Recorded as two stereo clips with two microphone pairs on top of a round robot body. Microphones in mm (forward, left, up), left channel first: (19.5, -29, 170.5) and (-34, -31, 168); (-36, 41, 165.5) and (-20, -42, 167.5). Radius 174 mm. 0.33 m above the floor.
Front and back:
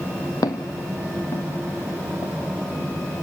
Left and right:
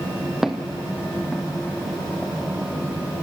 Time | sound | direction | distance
0.4 | footsteps | 5° left | 0.9 m